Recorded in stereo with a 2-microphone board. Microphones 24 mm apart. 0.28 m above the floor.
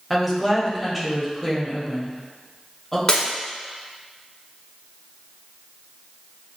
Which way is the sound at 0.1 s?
Centre (ahead or behind).